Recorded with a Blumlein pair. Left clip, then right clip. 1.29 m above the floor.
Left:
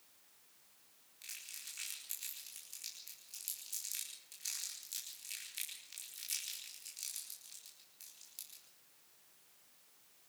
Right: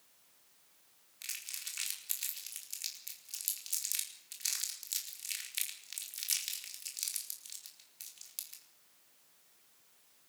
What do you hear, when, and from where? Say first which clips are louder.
1.2 s crumpling: right 6 dB; 25° right, 4.5 m